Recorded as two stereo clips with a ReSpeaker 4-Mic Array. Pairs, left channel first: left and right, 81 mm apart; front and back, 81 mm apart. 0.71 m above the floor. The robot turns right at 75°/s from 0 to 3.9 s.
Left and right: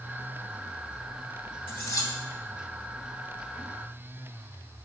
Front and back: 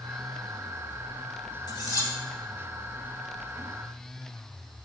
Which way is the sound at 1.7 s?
25° left.